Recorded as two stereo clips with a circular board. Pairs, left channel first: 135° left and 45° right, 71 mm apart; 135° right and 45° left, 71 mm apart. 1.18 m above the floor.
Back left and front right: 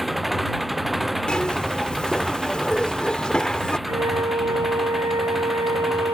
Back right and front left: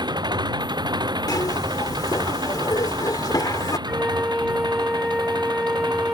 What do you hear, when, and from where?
0.0 s an engine running: 45° left
1.3 s a zipper: 145° right
3.9 s a flute: 40° right